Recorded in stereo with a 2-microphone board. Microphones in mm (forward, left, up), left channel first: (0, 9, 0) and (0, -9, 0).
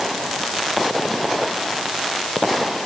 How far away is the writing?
No writing in this recording.